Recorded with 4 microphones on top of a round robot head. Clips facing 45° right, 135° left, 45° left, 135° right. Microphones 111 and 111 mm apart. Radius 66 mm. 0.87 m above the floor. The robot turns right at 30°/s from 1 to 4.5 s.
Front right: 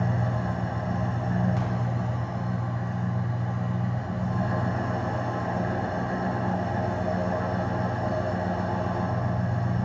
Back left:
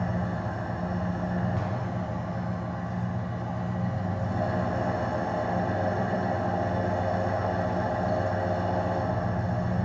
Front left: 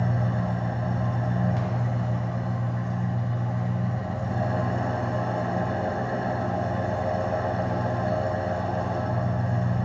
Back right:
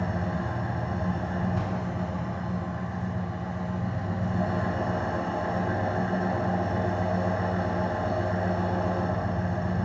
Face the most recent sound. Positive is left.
turn(degrees=100)